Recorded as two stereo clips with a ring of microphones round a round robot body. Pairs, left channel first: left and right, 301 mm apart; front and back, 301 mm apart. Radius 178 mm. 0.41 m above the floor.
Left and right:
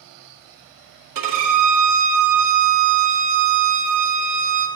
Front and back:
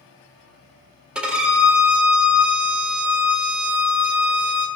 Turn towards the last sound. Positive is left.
turn(degrees=-95)